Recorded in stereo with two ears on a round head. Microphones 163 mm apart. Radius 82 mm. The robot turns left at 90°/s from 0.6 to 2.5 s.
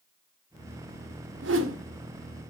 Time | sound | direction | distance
1.4 | a whoosh | 70° right | 1.8 m